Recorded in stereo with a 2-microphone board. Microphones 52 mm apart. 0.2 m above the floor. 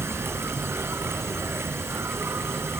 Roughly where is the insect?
Right.